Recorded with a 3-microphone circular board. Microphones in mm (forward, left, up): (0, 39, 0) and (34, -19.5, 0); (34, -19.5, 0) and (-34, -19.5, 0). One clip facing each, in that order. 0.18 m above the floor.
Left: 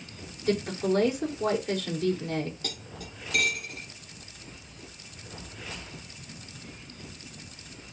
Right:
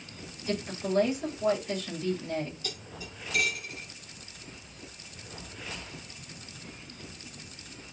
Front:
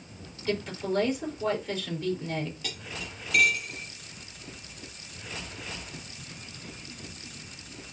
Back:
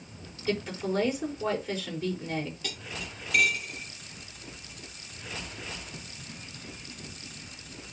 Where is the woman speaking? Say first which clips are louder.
Left 6 dB, even; 95° left, 5.5 m.